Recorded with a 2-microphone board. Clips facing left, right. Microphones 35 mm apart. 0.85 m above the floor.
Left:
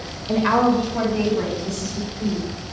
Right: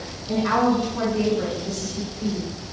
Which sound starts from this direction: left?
A woman speaking, at 0.3 s.